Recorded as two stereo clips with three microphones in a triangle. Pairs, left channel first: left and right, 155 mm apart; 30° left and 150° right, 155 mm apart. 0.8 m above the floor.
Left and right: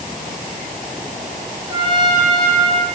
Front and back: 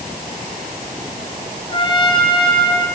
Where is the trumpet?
30° right, 4 m.